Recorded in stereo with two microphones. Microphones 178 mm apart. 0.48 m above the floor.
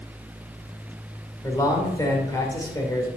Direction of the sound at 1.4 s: 20° left (ahead or behind).